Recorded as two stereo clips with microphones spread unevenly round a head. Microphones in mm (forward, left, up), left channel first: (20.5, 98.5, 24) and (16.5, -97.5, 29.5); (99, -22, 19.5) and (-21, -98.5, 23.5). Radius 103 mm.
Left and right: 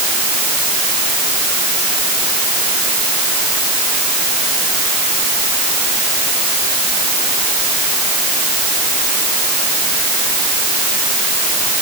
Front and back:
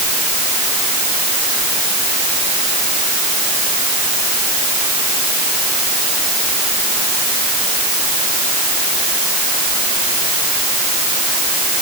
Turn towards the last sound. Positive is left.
No sound to turn to.